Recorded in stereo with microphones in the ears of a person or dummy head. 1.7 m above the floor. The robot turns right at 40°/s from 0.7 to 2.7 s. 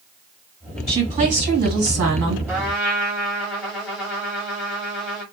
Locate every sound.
0.9 s a woman speaking: 150° right, 2.0 m; by 2.4 s 90° right, 2.0 m
2.5 s a trumpet: 10° right (ahead or behind), 1.2 m; by 5.2 s 5° right (ahead or behind), 1.2 m